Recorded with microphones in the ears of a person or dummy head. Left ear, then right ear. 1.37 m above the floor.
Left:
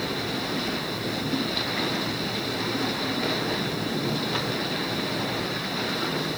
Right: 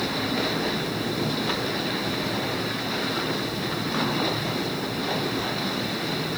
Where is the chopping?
I don't hear chopping.